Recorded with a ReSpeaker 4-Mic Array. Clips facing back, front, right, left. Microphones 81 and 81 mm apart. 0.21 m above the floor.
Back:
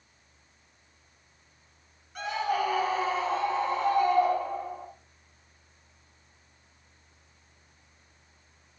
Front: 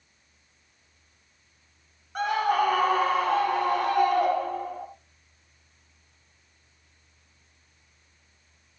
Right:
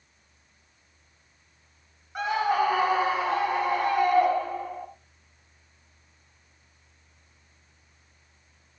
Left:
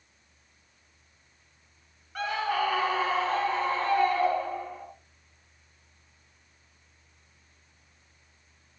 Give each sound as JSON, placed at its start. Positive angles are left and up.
{"t": 2.1, "sound": "a scream", "azimuth_deg": -25, "distance_m": 3.0}